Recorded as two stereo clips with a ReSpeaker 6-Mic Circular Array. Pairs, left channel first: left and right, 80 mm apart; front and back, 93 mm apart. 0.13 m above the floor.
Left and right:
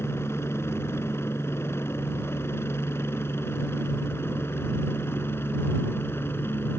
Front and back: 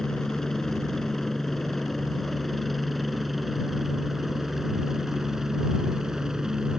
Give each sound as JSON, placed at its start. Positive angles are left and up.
{"t": 0.0, "sound": "a helicopter", "azimuth_deg": 80}